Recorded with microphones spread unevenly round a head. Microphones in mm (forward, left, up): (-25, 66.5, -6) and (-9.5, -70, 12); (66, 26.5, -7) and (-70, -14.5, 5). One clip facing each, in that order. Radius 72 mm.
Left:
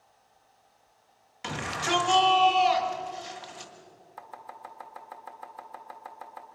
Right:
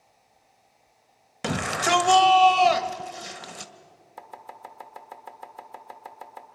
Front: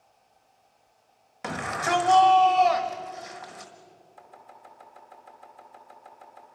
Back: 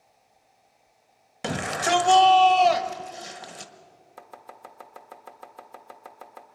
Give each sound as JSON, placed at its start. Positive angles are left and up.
{"t": 1.4, "sound": "a shout", "azimuth_deg": -110, "distance_m": 1.3}
{"t": 4.2, "sound": "chopping", "azimuth_deg": -145, "distance_m": 1.5}